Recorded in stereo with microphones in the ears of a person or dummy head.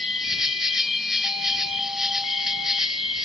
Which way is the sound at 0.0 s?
Centre (ahead or behind).